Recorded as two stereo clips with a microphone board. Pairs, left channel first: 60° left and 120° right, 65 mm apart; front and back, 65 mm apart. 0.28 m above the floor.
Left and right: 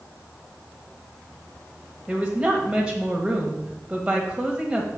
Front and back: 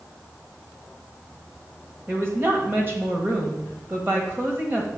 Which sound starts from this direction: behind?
A woman speaking, at 2.1 s.